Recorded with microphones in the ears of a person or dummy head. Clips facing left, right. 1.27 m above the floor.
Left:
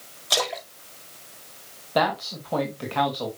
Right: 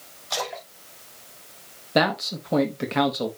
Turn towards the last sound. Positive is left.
turn(degrees=-25)  # may be behind; listen again after turning